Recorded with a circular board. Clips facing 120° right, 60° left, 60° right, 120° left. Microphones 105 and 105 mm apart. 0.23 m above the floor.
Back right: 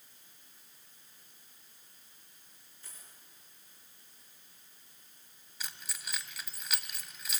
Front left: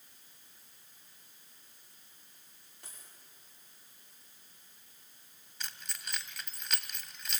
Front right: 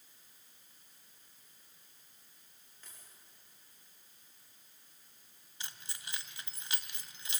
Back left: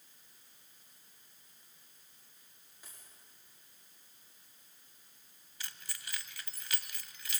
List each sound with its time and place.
2.8 s a dropped coin: 40° left, 10 m
5.6 s keys jangling: 40° right, 0.9 m